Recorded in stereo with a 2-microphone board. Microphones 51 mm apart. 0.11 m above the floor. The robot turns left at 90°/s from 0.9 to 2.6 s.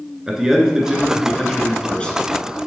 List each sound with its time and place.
0.3 s a man speaking: 15° right (ahead or behind), 1.3 m; by 2.2 s 25° left (ahead or behind), 1.3 m